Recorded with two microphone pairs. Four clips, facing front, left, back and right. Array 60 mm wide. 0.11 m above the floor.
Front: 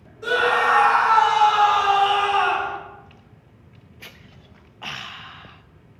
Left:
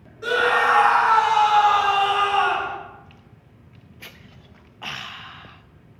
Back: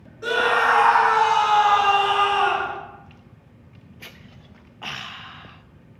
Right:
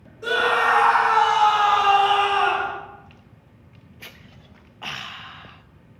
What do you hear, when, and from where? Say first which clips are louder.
0.2 s a scream: left 1 dB, even; 130° left, 1.5 m; by 2.8 s 75° right, 1.6 m